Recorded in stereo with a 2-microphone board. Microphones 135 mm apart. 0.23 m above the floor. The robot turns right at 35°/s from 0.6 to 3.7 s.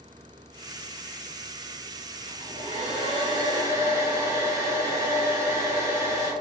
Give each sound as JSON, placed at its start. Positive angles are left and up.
{"t": 2.3, "sound": "a hair dryer", "azimuth_deg": -80, "distance_m": 1.6}